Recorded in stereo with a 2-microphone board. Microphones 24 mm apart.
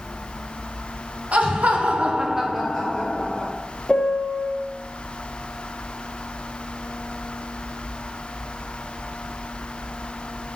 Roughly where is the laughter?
Right.